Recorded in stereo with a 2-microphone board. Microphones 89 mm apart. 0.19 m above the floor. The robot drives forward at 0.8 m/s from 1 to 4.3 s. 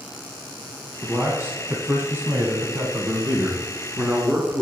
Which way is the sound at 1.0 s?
20° right (ahead or behind).